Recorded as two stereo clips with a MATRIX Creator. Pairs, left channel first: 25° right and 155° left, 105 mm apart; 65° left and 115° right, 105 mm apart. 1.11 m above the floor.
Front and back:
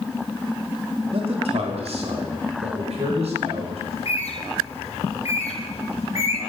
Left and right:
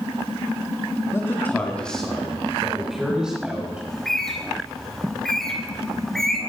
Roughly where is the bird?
Ahead.